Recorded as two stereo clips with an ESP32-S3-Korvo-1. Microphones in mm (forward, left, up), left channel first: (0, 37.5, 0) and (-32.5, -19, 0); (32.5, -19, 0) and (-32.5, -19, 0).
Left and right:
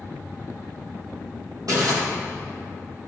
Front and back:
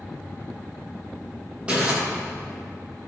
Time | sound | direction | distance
1.7 | crumpling | 110° right | 4 m